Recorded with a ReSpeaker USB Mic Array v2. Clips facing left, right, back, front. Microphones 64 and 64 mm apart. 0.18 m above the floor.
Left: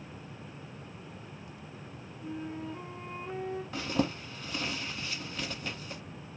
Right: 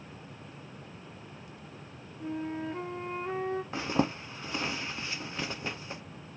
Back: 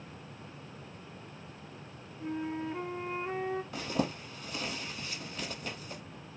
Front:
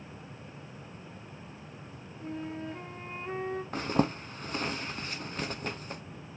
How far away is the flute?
About 1.0 m.